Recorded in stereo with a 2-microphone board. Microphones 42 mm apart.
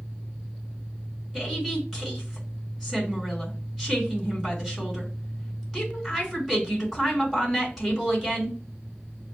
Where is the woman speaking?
10° left (ahead or behind), 3 m.